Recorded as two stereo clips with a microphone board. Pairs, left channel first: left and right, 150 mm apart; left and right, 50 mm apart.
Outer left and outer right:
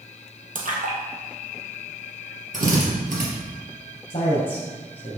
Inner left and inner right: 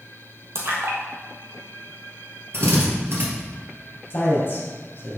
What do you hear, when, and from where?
0.6 s a splash: 65° right (ahead or behind), 1.6 m
2.5 s a drill: 60° right (ahead or behind), 2.5 m
4.1 s a man speaking: 40° left (ahead or behind), 2.5 m